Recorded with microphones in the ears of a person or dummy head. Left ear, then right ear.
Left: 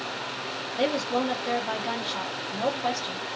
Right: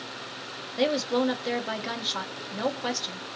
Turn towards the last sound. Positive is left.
turn(degrees=-25)  # may be behind; listen again after turning